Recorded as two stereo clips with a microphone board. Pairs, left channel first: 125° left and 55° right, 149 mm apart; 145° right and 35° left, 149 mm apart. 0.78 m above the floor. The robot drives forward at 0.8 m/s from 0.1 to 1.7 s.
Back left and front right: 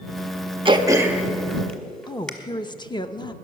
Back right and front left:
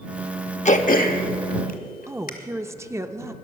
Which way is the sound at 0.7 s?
110° right.